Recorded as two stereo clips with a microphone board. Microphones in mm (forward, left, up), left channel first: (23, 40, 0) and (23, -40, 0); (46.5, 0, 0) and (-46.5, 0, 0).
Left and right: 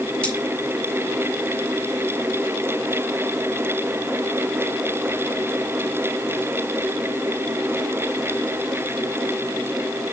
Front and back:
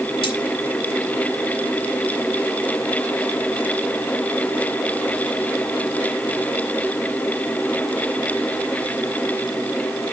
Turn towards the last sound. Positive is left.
turn(degrees=15)